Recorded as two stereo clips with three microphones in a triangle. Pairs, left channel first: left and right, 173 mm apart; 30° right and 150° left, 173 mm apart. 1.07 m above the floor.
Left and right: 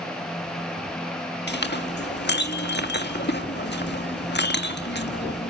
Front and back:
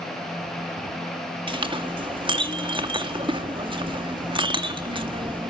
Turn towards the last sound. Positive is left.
turn(degrees=90)